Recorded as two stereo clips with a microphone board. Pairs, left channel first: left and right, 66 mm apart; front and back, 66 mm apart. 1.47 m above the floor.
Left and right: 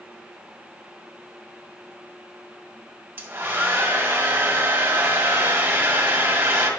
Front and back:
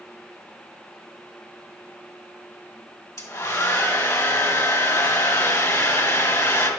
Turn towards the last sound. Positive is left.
turn(degrees=-30)